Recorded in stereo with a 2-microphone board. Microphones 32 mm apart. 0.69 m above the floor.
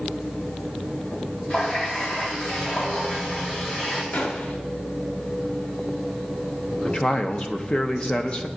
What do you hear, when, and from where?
1.5 s a running tap: 45° left (ahead or behind), 1.5 m
4.1 s a gunshot: 75° left (ahead or behind), 0.9 m
6.8 s a man speaking: 30° left (ahead or behind), 0.5 m